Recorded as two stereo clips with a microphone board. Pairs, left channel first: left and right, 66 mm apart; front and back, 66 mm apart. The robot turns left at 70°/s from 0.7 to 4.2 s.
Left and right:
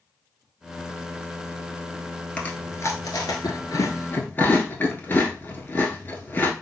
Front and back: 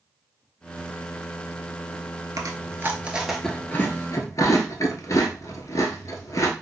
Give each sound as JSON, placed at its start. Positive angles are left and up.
{"t": 2.4, "sound": "chewing", "azimuth_deg": 160, "distance_m": 0.9}